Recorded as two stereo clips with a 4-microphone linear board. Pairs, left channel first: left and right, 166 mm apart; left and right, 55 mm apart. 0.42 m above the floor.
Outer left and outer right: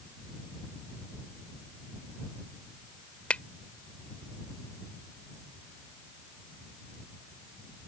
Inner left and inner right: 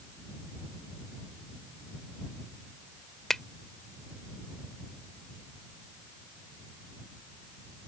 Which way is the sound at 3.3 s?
10° left (ahead or behind).